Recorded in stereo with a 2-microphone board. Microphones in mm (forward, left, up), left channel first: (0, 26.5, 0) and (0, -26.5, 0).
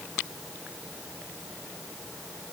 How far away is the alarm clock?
No alarm clock in this recording.